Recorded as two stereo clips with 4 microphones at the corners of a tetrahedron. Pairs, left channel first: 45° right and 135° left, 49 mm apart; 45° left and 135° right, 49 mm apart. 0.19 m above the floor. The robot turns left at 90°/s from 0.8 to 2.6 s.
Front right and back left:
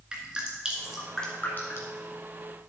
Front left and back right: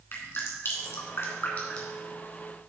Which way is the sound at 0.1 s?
65° left.